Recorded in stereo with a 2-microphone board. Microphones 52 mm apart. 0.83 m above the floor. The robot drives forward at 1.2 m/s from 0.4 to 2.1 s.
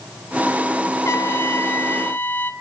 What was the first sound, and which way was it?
A trumpet, 65° left (ahead or behind).